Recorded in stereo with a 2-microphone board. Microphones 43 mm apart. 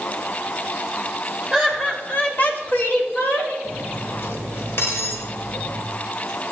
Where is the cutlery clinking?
60° left (ahead or behind), 1.7 m.